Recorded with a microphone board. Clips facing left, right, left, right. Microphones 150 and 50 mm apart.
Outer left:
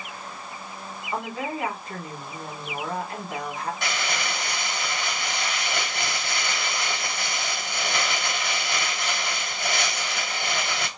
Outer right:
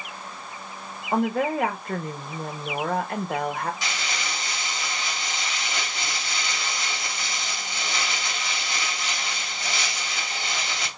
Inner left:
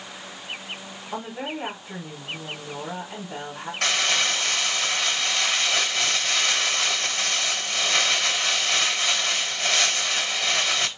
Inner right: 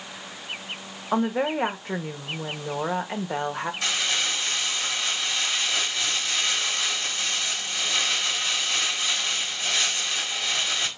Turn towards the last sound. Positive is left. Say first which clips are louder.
# outer left 3 dB, inner left 6 dB
turn(degrees=60)  # may be behind; listen again after turning